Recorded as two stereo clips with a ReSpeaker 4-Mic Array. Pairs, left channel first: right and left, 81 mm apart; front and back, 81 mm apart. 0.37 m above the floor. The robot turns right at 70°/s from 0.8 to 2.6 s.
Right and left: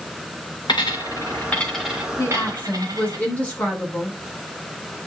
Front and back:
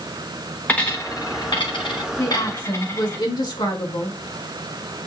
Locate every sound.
0.7 s a dropped coin: 70° right, 1.9 m; by 3.2 s 55° left, 1.9 m
2.2 s a woman speaking: 50° right, 4 m; by 4.2 s 20° right, 4 m